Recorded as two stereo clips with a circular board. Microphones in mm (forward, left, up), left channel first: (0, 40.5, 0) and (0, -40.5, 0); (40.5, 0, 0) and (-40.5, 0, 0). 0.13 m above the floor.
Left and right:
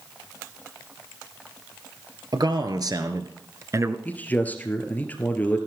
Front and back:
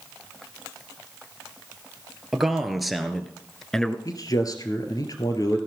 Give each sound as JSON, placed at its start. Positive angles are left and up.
{"t": 2.3, "sound": "a man speaking", "azimuth_deg": -95, "distance_m": 2.0}
{"t": 4.0, "sound": "a man speaking", "azimuth_deg": 25, "distance_m": 2.0}